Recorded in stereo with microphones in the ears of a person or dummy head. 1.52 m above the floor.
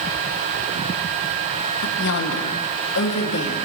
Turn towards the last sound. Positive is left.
turn(degrees=60)  # may be behind; listen again after turning